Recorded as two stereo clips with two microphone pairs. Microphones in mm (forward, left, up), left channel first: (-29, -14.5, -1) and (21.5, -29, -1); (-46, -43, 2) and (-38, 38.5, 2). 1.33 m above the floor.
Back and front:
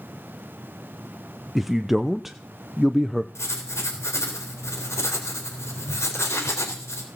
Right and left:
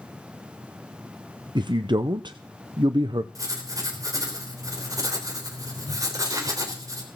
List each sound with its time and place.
1.6 s a man speaking: 70° left, 0.7 m
3.4 s writing: 130° left, 3.5 m